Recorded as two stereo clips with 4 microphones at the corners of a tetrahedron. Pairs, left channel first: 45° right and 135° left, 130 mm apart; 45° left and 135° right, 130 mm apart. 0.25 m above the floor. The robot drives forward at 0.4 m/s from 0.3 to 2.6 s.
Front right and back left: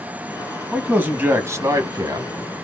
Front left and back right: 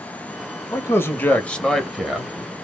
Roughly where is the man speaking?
Ahead left.